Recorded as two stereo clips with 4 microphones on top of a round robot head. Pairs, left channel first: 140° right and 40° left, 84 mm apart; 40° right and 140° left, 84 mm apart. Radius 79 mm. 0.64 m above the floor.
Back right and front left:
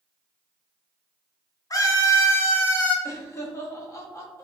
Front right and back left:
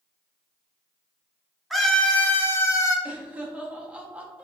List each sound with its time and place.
1.7 s a scream: 135° right, 0.9 m; by 3.0 s 75° right, 1.0 m
3.0 s laughter: 160° right, 0.8 m